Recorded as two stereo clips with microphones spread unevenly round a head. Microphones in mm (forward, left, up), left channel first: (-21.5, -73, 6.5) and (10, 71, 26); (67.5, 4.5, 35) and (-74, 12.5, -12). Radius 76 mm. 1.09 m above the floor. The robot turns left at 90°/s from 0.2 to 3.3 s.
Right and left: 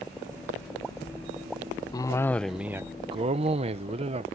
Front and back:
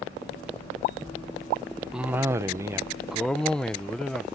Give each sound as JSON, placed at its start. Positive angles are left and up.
{"t": 1.9, "sound": "a cough", "azimuth_deg": -130}